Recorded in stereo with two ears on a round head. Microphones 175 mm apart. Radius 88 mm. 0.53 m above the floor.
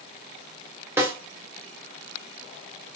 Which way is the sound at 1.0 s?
15° right (ahead or behind).